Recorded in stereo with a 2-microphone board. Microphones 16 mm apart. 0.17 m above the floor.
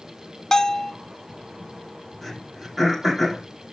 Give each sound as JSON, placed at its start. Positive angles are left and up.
{"t": 0.5, "sound": "a bell", "side_deg": 40, "distance_m": 0.7}
{"t": 2.2, "sound": "throat clearing", "side_deg": 10, "distance_m": 5.5}